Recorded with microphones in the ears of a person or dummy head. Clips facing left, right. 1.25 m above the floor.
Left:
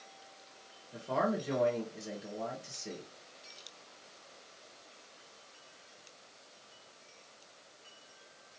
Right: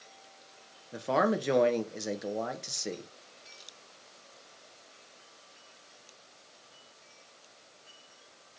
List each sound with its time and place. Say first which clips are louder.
0.9 s a man speaking: right 5 dB; 70° right (ahead or behind), 0.6 m